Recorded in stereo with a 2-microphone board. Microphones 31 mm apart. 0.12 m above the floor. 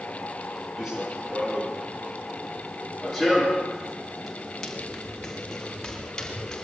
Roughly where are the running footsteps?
Centre.